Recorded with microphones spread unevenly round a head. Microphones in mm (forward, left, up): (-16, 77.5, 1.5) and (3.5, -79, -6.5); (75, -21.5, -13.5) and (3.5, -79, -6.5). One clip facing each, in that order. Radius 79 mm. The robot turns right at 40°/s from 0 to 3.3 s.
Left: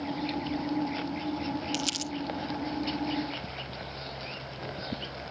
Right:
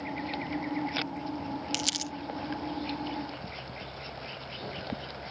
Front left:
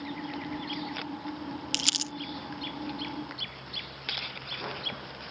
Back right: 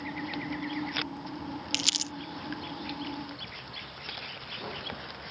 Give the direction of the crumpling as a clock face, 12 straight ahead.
1 o'clock.